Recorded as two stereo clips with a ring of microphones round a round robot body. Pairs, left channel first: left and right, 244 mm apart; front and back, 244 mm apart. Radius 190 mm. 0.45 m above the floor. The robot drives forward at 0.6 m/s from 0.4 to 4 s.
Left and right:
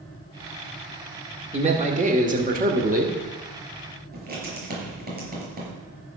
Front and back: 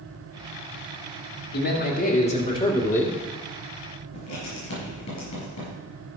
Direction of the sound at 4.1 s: 40° right.